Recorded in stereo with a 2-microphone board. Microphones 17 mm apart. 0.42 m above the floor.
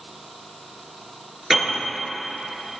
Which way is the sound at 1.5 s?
40° right (ahead or behind).